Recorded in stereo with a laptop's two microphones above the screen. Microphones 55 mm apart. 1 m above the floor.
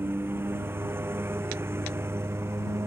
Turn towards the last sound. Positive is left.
turn(degrees=-50)  # may be behind; listen again after turning